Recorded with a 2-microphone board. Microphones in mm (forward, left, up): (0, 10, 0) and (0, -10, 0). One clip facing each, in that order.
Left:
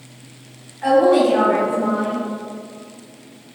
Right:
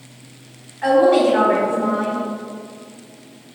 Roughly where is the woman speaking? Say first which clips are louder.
Even; right.